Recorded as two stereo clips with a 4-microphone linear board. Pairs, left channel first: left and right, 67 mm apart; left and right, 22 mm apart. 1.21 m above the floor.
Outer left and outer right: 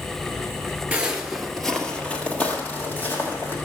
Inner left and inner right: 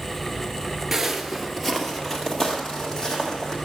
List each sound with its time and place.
0.9 s footsteps: 20° right (ahead or behind), 1.2 m; by 3.5 s 25° left (ahead or behind), 3.5 m